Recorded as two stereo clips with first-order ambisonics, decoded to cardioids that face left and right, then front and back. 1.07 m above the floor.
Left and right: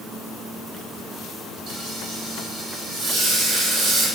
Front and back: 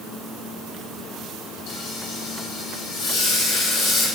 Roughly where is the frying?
Ahead right.